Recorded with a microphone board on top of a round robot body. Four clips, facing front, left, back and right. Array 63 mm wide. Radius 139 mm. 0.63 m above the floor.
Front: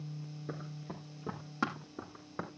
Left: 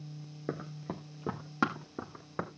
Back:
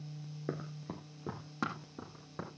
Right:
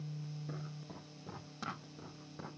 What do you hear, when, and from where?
0.5 s running footsteps: 125° left, 0.9 m; by 2.5 s 80° left, 3 m